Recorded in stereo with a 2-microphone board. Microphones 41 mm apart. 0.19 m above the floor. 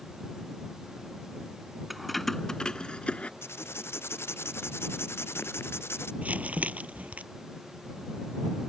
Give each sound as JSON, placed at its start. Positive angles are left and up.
{"t": 1.9, "sound": "keys jangling", "side_deg": -5}
{"t": 3.4, "sound": "writing", "side_deg": 80}
{"t": 6.2, "sound": "crumpling", "side_deg": -35}